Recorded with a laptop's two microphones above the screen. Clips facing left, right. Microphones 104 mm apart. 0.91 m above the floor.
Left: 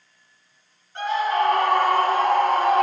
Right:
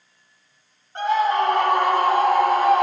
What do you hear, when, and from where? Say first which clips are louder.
0.9 s a scream: right 3 dB; 35° right (ahead or behind), 2 m; by 2.8 s centre (ahead or behind), 1.9 m